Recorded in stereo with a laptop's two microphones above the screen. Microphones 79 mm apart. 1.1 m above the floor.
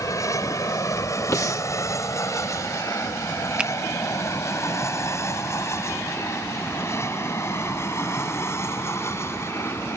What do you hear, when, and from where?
0.0 s an aircraft: 40° left (ahead or behind); by 10.0 s 30° left (ahead or behind)
1.3 s breathing: 40° left (ahead or behind)
3.6 s a finger snap: 15° right (ahead or behind)